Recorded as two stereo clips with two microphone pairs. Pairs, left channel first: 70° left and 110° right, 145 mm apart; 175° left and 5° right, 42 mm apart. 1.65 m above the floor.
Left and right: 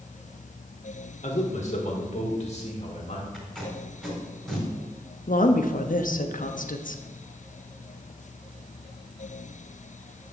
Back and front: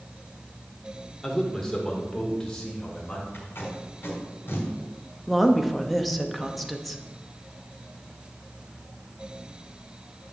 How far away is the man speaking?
About 1.5 m.